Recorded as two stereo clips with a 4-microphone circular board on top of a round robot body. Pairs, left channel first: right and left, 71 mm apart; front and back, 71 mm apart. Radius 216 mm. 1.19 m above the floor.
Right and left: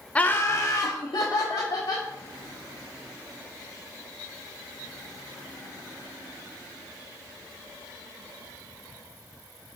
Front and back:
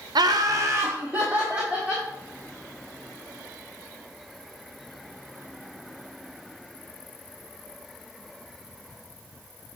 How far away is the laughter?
About 0.5 m.